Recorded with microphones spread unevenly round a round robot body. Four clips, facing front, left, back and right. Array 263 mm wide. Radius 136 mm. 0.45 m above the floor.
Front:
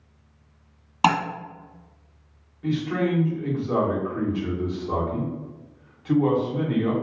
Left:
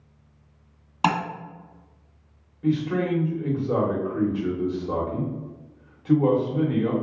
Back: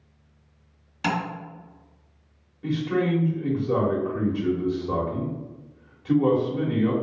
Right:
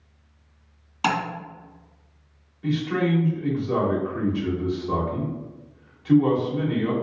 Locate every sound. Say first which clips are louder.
1.0 s tapping: left 1 dB, front 7 dB; 10° left, 1.3 m
2.6 s a man speaking: even, even; 85° left, 1.1 m